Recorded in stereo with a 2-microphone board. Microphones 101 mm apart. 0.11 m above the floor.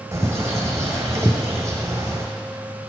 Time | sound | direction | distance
0.1 | a bird | 30° right (ahead or behind) | 1.3 m